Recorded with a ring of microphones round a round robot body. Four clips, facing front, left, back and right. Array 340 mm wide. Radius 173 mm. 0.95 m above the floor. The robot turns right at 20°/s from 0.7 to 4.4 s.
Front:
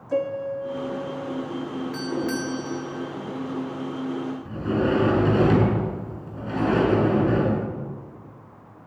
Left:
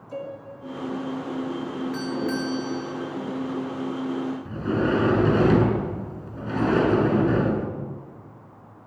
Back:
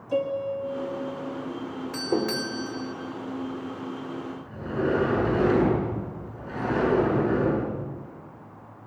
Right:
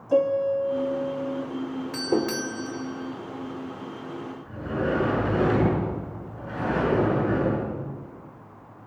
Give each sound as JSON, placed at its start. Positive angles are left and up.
{"t": 0.1, "sound": "a piano", "azimuth_deg": -75, "distance_m": 2.0}
{"t": 1.9, "sound": "a doorbell", "azimuth_deg": -120, "distance_m": 4.5}
{"t": 4.5, "sound": "a sliding door", "azimuth_deg": 60, "distance_m": 8.5}